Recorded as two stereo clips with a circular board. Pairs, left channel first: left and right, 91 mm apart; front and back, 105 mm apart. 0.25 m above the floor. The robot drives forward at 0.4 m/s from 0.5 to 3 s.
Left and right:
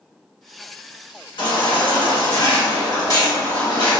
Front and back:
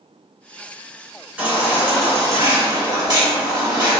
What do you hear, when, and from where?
1.4 s a baby crying: 105° left, 1.2 m; by 4.0 s 130° left, 1.5 m